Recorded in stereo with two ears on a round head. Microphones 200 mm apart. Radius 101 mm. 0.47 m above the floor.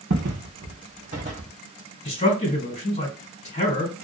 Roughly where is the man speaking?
Left.